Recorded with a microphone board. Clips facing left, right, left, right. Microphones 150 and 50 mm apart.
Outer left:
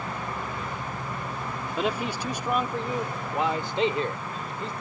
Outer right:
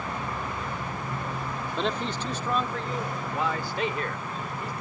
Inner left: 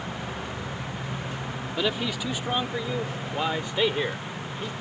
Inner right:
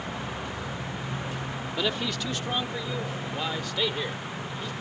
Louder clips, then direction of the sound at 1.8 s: Outer left 2 dB, inner left 2 dB; 5° left (ahead or behind).